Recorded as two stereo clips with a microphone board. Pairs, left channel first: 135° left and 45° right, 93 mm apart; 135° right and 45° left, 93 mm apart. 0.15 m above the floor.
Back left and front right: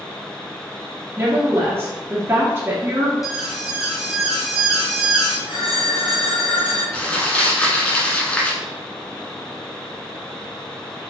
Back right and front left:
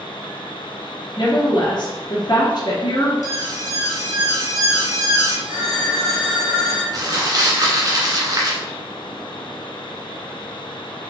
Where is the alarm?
40° left, 1.5 m.